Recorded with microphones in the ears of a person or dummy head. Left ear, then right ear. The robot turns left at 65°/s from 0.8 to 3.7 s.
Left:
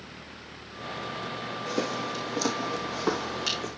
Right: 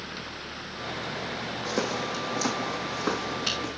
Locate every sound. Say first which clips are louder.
1.6 s footsteps: right 1 dB; 70° right (ahead or behind), 4 m; by 3.7 s 60° left (ahead or behind), 5 m